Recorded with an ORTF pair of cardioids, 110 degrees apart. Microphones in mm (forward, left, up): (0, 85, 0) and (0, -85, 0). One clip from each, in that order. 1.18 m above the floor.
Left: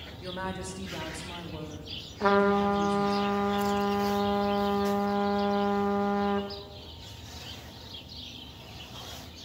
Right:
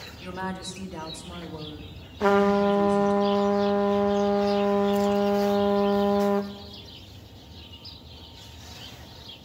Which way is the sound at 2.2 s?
15° right.